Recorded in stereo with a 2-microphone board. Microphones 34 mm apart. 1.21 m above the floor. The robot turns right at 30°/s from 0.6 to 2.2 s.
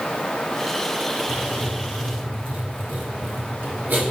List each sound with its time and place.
1.3 s writing: 45° right (ahead or behind), 1.3 m; by 4.1 s 70° right (ahead or behind), 1.3 m